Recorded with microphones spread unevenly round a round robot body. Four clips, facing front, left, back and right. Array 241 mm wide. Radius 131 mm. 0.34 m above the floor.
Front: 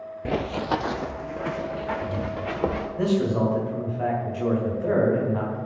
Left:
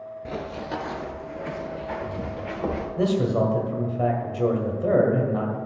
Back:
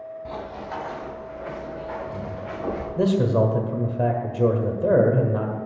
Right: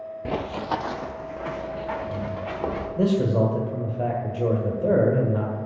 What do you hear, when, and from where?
0.2 s running footsteps: 30° right, 0.5 m; by 2.9 s straight ahead, 3.5 m
3.0 s a man speaking: 175° right, 1.8 m